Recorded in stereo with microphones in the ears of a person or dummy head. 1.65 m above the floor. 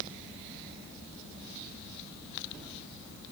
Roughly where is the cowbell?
I don't hear a cowbell.